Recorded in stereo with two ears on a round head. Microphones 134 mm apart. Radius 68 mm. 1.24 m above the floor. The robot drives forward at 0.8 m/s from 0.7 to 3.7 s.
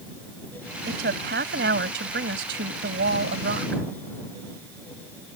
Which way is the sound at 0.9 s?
65° right (ahead or behind).